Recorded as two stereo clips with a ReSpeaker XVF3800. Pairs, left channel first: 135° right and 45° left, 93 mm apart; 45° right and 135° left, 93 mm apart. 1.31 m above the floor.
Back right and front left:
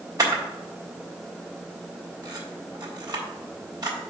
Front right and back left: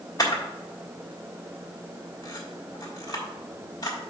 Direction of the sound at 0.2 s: Straight ahead.